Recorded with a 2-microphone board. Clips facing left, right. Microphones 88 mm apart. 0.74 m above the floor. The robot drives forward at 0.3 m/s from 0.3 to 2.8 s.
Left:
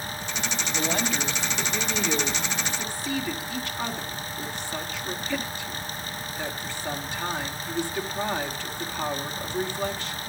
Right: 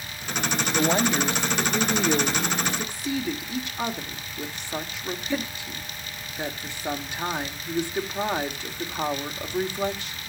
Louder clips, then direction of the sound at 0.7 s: Right 5 dB; 25° right (ahead or behind).